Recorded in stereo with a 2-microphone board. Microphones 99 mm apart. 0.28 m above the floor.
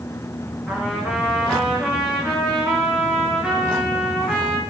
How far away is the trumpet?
About 4.5 m.